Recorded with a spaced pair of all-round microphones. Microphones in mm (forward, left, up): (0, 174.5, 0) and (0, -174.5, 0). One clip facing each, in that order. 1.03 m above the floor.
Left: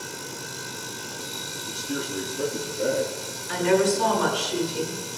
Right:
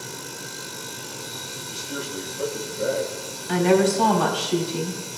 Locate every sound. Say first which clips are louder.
1.7 s a man speaking: left 3 dB; 60° left (ahead or behind), 2.5 m
3.5 s a woman speaking: right 3 dB; 75° right (ahead or behind), 3.5 m